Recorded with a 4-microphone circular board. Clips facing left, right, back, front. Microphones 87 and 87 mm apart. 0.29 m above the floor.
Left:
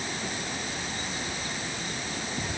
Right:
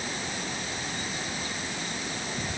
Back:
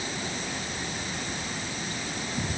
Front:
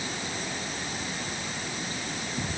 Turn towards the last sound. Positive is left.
No sound to turn to.